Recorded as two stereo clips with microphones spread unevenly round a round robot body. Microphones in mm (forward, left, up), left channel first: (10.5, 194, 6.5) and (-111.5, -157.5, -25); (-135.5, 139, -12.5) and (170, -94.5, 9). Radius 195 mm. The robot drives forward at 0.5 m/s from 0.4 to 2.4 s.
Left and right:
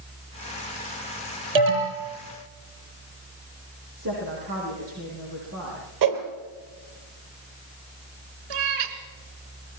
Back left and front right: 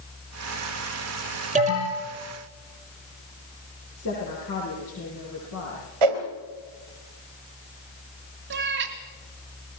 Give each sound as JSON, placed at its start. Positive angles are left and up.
{"t": 1.6, "sound": "an alarm", "azimuth_deg": -110, "distance_m": 9.0}
{"t": 4.0, "sound": "a woman speaking", "azimuth_deg": -160, "distance_m": 9.0}
{"t": 6.0, "sound": "a whoosh", "azimuth_deg": -65, "distance_m": 3.0}
{"t": 8.5, "sound": "a cat meowing", "azimuth_deg": -100, "distance_m": 2.0}